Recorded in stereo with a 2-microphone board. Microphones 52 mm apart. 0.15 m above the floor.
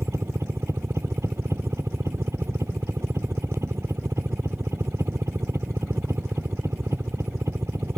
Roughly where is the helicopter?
Right.